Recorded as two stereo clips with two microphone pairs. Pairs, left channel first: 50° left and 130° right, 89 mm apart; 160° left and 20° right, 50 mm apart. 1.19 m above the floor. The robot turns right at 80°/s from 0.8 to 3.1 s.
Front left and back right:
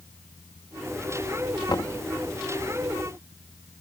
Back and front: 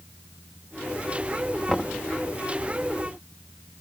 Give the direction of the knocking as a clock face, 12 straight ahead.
9 o'clock.